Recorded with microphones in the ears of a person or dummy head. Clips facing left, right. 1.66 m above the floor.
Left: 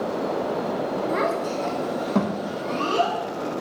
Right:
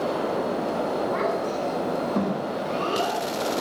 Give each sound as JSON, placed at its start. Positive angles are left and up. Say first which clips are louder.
{"t": 1.1, "sound": "a child speaking", "louder": "left 1 dB", "side_deg": 35, "distance_m": 1.0}